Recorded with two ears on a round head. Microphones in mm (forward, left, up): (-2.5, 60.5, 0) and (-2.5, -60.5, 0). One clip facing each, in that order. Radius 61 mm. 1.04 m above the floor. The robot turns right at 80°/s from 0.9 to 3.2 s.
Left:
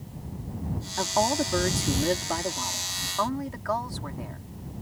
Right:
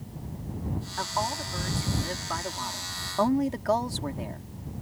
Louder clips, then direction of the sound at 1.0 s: Left 7 dB; 35° left.